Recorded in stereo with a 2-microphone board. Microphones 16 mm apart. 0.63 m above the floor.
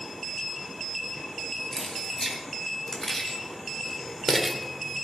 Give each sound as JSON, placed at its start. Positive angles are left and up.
{"t": 1.7, "sound": "keys jangling", "side_deg": 35, "distance_m": 3.5}